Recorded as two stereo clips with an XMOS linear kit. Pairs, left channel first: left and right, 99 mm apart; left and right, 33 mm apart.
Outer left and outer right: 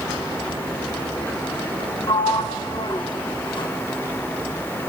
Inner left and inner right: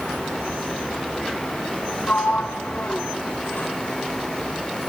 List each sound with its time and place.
2.1 s a sliding door: 55° left (ahead or behind), 0.8 m